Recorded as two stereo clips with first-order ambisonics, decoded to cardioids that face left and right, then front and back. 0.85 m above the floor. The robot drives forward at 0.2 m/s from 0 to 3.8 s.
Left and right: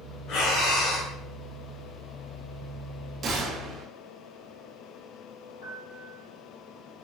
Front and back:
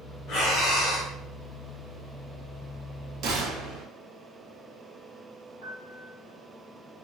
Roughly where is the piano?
Behind left.